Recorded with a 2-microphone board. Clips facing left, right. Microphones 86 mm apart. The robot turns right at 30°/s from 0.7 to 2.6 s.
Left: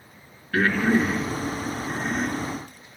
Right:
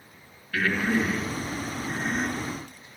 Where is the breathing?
40° left (ahead or behind), 4.5 m; by 2.4 s 10° right (ahead or behind), 4.5 m.